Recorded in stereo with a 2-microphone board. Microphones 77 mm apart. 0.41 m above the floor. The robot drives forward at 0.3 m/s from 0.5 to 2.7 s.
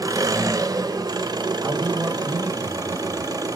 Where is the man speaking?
40° right (ahead or behind), 1.6 m; by 3.3 s 35° right (ahead or behind), 1.8 m.